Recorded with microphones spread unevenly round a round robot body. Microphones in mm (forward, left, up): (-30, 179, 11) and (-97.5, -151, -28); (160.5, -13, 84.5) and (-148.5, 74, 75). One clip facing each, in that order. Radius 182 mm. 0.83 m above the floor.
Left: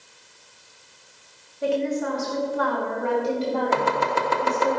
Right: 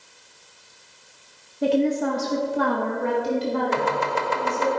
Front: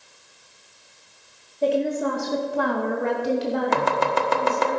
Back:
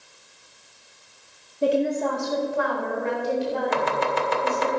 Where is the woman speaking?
125° right, 1.1 m; by 4.7 s 20° right, 3 m.